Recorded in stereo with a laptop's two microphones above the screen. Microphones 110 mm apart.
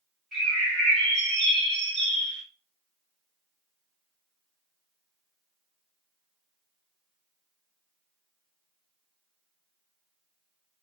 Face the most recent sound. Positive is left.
turn(degrees=0)  # may be behind; listen again after turning